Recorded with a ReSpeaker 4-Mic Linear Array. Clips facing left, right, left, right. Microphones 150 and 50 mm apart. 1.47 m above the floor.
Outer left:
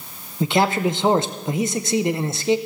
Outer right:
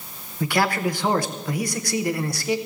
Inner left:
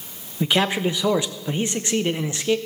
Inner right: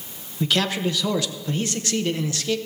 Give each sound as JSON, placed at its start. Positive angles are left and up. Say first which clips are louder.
{"t": 0.4, "sound": "a man speaking", "louder": "outer left 3 dB, inner left 2 dB", "side_deg": 20, "distance_m": 0.6}